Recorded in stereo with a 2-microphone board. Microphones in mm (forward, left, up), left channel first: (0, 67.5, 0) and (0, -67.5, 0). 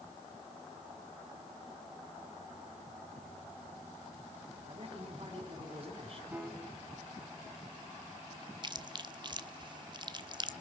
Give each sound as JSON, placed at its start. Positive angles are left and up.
{"t": 4.7, "sound": "a man speaking", "side_deg": -45, "distance_m": 5.5}
{"t": 6.3, "sound": "a piano", "side_deg": -10, "distance_m": 3.5}
{"t": 8.6, "sound": "chewing", "side_deg": -35, "distance_m": 1.3}